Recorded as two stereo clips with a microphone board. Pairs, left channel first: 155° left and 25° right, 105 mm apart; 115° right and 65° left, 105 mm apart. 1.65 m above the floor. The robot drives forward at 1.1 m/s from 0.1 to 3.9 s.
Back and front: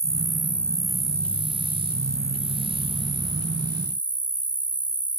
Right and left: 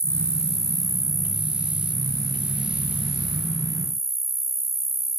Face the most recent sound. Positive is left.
turn(degrees=-165)